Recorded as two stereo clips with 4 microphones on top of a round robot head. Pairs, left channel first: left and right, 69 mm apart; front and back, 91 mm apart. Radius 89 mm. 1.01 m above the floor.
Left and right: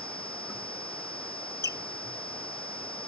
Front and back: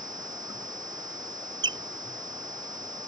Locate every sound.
1.6 s a squeak: 145° left